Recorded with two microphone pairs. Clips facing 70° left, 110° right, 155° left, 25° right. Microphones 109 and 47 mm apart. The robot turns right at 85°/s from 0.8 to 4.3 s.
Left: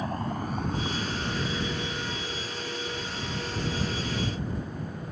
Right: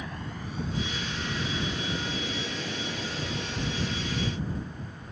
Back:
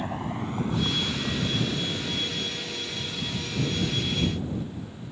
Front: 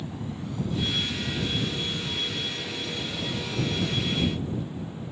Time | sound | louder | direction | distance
0.0 | a vehicle | left 7 dB, back 4 dB | 120° left | ?